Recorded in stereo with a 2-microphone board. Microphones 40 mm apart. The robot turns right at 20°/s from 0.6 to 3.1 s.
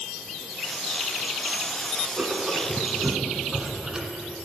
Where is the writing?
30° right (ahead or behind), 1.6 m; by 4.2 s 15° right (ahead or behind), 1.6 m.